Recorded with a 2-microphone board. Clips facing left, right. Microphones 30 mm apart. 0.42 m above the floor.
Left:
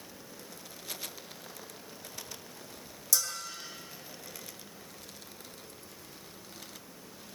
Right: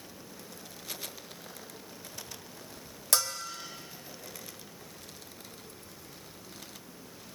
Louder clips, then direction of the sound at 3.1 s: Right 3 dB; 50° right (ahead or behind).